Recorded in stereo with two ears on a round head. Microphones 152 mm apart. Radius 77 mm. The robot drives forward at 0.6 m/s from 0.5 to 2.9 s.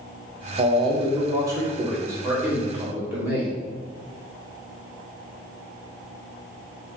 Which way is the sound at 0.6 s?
30° right (ahead or behind).